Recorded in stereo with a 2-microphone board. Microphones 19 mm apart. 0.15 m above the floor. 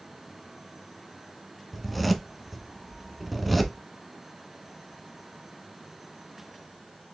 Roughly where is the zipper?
Centre.